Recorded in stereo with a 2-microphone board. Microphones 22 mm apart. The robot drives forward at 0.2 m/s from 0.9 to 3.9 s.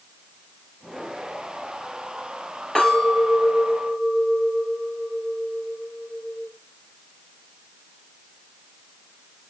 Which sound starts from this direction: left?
A clink, at 2.8 s.